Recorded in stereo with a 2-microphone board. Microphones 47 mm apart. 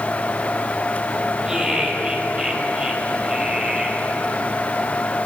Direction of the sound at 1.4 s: 20° right (ahead or behind).